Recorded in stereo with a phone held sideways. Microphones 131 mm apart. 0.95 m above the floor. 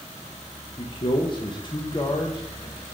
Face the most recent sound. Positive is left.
turn(degrees=35)  # may be behind; listen again after turning